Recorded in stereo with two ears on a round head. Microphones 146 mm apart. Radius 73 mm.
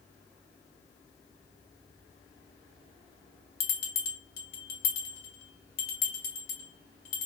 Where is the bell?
65° left (ahead or behind), 1.1 m.